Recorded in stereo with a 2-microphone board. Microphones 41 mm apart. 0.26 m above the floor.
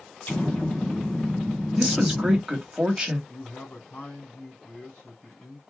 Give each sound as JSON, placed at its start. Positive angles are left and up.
{"t": 0.2, "sound": "an explosion", "side_deg": 45, "distance_m": 1.6}
{"t": 1.8, "sound": "a woman speaking", "side_deg": -15, "distance_m": 1.3}
{"t": 3.3, "sound": "a man speaking", "side_deg": 40, "distance_m": 2.0}